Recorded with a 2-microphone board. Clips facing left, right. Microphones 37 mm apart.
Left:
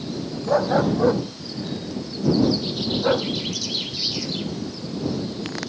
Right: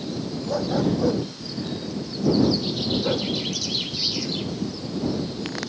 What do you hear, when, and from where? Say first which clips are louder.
0.5 s a dog barking: left 4 dB; 45° left (ahead or behind); by 3.3 s 40° left (ahead or behind)